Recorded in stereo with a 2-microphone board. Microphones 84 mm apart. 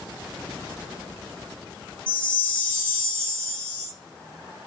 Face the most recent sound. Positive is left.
turn(degrees=15)  # may be behind; listen again after turning